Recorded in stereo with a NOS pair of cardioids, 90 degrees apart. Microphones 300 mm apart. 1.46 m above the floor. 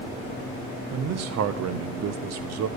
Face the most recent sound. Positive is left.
turn(degrees=-60)